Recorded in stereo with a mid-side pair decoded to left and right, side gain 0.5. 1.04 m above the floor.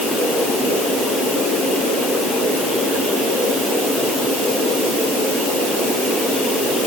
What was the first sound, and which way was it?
Only background noise.